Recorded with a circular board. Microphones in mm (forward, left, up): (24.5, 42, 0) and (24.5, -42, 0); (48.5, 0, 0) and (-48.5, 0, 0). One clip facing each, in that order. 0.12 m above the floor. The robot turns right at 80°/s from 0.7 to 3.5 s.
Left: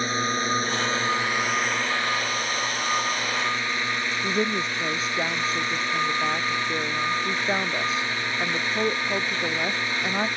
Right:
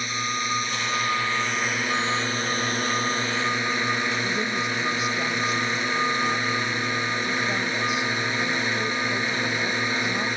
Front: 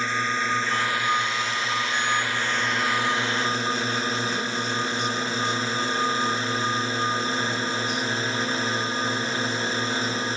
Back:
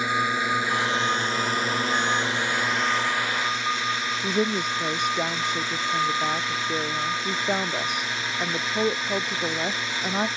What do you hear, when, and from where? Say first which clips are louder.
0.0 s a drone: left 3 dB, back 1 dB; 110° left; by 10.4 s 30° right
4.2 s a woman speaking: left 1 dB, back 3 dB; 150° left